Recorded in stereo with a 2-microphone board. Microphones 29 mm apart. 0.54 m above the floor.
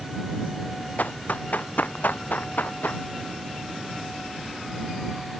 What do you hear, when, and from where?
1.0 s running footsteps: 55° left (ahead or behind); by 3.0 s 75° left (ahead or behind)